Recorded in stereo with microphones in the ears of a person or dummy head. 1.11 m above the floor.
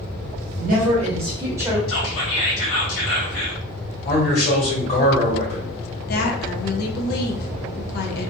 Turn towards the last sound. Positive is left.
turn(degrees=55)  # may be behind; listen again after turning